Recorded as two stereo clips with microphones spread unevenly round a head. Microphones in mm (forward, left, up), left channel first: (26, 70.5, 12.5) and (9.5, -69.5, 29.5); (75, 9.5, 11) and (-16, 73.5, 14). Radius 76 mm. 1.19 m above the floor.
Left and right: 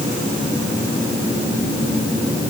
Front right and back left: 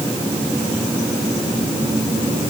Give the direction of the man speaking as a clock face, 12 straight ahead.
I don't hear a man speaking.